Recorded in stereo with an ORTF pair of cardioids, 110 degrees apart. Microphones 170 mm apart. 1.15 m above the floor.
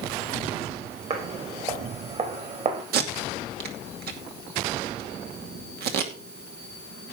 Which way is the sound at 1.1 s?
40° right.